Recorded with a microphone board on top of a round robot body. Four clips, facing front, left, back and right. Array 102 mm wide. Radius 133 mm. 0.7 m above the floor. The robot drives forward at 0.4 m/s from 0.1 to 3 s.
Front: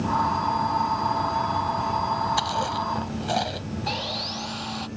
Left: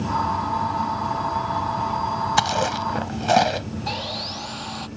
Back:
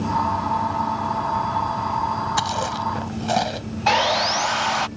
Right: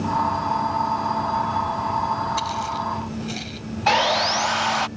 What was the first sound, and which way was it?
Chewing, 100° left.